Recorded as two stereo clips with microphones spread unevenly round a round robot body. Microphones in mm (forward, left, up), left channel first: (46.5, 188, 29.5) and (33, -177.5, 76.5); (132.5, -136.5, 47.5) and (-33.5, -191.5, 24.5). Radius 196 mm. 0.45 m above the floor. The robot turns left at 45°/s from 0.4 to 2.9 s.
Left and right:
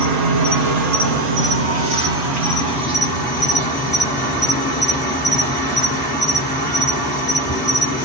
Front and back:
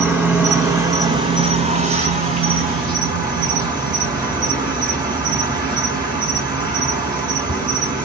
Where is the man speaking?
I don't hear a man speaking.